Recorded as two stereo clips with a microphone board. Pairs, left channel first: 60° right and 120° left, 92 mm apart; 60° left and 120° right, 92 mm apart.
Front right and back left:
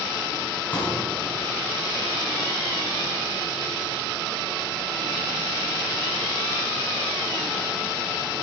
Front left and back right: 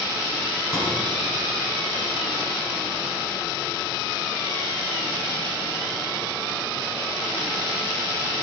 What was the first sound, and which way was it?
A pop, 10° left.